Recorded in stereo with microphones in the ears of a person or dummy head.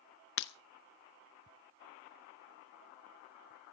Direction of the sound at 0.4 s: 65° left (ahead or behind).